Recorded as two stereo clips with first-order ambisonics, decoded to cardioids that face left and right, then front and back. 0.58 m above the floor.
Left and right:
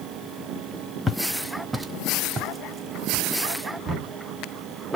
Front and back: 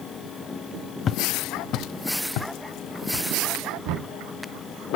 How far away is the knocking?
About 4 m.